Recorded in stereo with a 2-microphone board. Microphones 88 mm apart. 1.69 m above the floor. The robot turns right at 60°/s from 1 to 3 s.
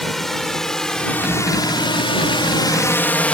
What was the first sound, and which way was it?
A drone, 5° left (ahead or behind).